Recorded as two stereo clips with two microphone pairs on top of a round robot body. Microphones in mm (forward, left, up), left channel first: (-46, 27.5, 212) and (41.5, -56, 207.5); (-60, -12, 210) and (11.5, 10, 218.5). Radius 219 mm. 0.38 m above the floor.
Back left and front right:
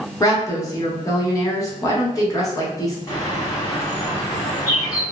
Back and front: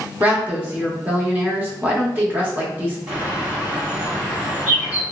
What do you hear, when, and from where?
0.2 s a woman speaking: 85° left, 1.4 m
3.1 s a bird: 85° left, 1.7 m